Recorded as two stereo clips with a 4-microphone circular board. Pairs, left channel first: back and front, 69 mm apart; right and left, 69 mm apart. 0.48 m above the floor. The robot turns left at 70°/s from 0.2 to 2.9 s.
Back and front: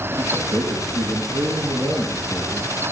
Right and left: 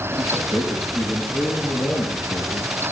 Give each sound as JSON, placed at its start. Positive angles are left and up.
{"t": 0.2, "sound": "a man speaking", "azimuth_deg": 60, "distance_m": 7.5}